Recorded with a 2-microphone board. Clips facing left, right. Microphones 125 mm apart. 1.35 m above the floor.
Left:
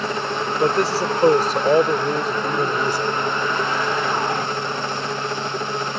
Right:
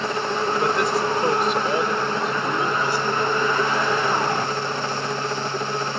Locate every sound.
0.6 s a man speaking: 35° left (ahead or behind); by 3.1 s 45° left (ahead or behind)